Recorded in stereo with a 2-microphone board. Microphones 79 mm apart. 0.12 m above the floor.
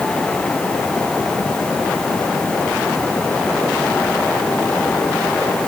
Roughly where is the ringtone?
I don't hear a ringtone.